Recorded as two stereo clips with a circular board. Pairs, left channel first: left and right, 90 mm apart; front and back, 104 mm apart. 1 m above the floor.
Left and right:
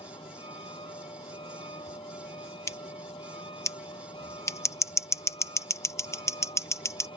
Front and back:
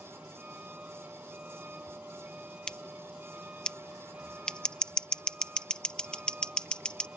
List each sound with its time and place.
0.0 s a vehicle: 105° left
2.7 s scissors: 75° left